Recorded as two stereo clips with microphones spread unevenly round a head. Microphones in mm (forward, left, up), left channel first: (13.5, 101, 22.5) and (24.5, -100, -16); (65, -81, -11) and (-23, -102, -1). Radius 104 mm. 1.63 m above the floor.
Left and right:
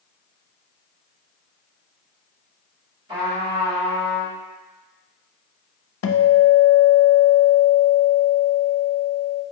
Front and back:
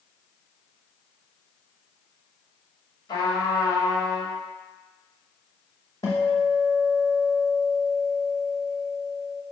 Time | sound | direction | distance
3.1 | a trumpet | 20° right | 1.5 m
6.0 | a guitar | 80° left | 0.5 m